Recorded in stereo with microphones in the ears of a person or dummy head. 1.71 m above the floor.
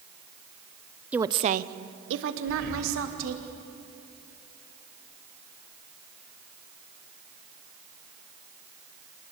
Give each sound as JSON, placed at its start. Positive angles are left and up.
{"t": 1.1, "sound": "a woman speaking", "side_deg": -5, "distance_m": 0.8}
{"t": 2.5, "sound": "breathing", "side_deg": -70, "distance_m": 6.0}